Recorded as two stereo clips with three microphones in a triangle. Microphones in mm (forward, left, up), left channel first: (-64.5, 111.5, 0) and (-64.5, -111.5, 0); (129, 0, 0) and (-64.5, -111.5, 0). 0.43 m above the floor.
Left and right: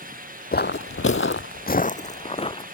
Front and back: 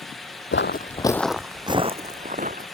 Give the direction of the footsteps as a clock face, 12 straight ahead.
10 o'clock.